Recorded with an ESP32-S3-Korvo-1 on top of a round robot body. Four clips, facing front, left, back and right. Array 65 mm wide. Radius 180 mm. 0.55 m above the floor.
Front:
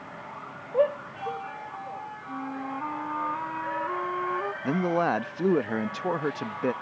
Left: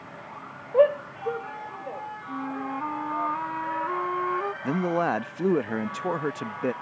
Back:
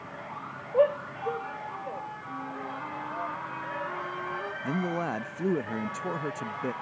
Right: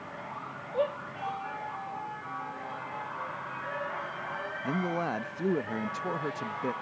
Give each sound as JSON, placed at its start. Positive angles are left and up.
{"t": 0.7, "sound": "a shout", "azimuth_deg": 90}
{"t": 2.3, "sound": "a flute", "azimuth_deg": 65}
{"t": 4.6, "sound": "a man speaking", "azimuth_deg": 45}